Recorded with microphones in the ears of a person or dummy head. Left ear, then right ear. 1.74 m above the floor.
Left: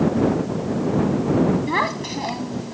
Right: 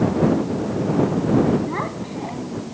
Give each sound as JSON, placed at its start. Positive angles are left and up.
{"t": 1.7, "sound": "a child speaking", "side_deg": 75}